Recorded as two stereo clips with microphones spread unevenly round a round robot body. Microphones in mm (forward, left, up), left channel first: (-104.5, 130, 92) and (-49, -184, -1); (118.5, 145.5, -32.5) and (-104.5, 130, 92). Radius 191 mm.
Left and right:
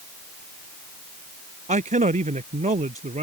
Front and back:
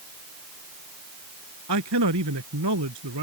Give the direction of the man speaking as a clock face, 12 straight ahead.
5 o'clock.